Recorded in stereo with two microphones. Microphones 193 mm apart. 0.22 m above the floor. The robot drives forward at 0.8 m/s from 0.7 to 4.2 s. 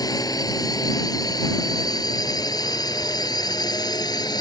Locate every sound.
0.0 s a drone: 20° left (ahead or behind)